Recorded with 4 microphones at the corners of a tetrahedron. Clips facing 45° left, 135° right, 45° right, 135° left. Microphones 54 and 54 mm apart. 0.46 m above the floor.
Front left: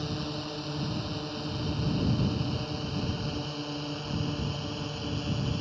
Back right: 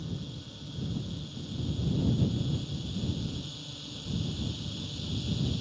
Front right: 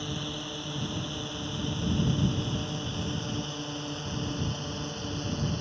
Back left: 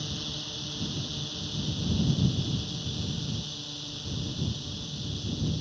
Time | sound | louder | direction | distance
0.0 | a drone | front left 7 dB, front right 3 dB | 25° left | ?